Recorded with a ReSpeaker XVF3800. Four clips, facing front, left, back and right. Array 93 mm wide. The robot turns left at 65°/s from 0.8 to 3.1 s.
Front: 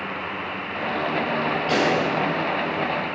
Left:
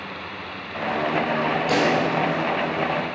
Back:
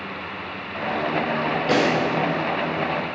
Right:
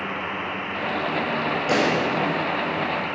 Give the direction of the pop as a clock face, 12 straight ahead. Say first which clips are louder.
Even, back 2 dB; 5 o'clock.